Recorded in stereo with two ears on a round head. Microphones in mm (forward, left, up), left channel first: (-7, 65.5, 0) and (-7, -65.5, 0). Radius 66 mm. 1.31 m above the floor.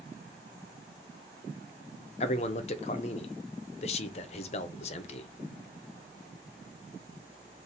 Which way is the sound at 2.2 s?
40° left (ahead or behind).